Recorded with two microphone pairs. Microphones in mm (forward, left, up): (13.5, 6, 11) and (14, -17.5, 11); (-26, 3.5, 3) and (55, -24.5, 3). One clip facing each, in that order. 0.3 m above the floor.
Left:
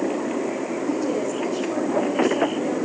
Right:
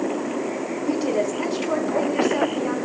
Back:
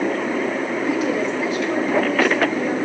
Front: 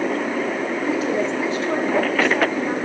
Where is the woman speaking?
75° right, 3 m.